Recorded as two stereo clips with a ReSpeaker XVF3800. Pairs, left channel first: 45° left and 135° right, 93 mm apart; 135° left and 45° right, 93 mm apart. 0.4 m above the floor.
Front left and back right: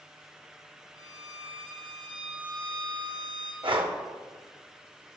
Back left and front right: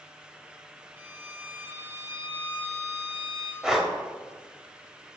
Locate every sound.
1.0 s a violin: 105° right, 1.6 m
3.6 s breathing: 130° right, 0.9 m